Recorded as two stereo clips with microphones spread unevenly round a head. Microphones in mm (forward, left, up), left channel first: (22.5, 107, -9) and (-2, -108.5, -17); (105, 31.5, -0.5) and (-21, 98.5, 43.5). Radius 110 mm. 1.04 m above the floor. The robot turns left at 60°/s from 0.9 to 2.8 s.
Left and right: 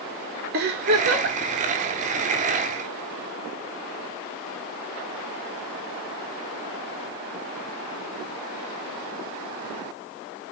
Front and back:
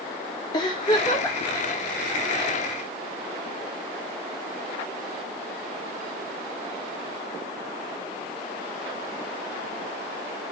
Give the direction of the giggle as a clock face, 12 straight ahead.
2 o'clock.